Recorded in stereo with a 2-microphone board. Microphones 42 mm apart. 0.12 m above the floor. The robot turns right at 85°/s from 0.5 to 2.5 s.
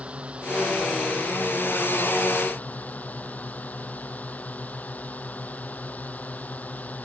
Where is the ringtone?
I don't hear a ringtone.